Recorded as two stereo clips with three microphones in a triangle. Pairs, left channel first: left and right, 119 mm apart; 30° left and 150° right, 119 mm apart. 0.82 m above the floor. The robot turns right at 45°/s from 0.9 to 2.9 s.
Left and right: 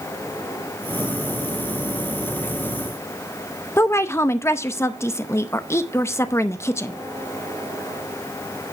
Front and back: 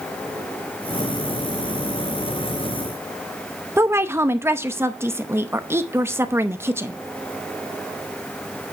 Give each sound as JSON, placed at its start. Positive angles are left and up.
{"t": 3.8, "sound": "a woman speaking", "azimuth_deg": 150, "distance_m": 0.6}